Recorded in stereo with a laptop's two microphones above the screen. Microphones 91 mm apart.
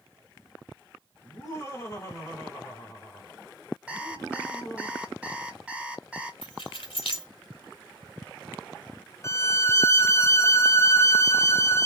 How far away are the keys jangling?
About 1.7 m.